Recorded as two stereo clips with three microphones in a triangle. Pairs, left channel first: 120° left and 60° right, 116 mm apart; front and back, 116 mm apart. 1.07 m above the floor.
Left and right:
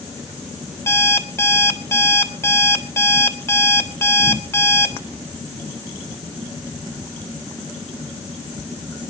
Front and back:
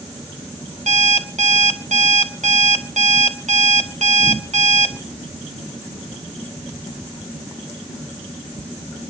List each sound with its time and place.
0.9 s an alarm clock: 175° right, 1.3 m